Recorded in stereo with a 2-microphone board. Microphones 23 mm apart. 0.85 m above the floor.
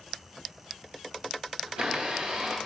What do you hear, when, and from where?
1.7 s a blender: 40° right (ahead or behind), 1.7 m